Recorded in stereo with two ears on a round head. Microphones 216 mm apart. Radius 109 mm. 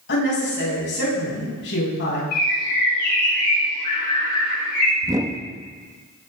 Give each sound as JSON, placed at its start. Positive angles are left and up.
{"t": 0.1, "sound": "a woman speaking", "side_deg": 45, "distance_m": 8.0}
{"t": 2.3, "sound": "a bird", "side_deg": 75, "distance_m": 8.5}
{"t": 5.0, "sound": "a whoosh", "side_deg": -15, "distance_m": 0.8}